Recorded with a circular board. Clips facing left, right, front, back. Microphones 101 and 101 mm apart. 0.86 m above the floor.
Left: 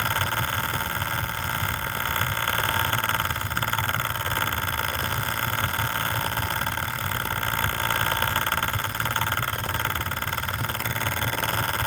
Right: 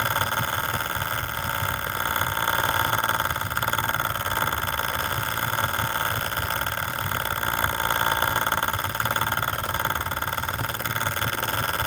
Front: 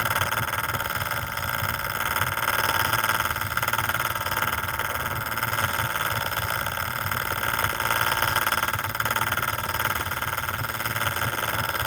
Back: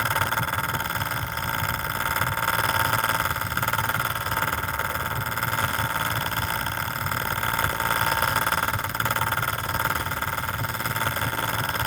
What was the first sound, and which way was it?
Only background noise.